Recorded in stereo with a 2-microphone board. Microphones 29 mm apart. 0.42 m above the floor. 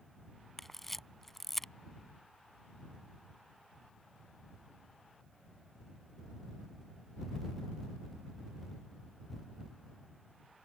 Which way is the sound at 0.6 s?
5° left (ahead or behind).